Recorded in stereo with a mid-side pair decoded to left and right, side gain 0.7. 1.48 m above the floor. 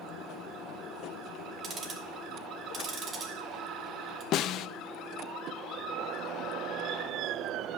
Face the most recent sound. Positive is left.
turn(degrees=50)